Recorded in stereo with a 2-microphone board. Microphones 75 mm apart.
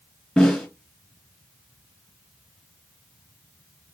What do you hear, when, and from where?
0.4 s a snare drum: centre (ahead or behind), 2.5 m